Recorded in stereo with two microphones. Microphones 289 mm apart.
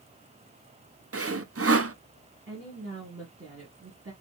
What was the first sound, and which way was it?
Sawing, 50° right (ahead or behind).